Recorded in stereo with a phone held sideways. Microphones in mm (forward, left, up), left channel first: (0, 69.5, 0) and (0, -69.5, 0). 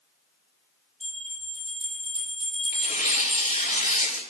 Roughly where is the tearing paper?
Left.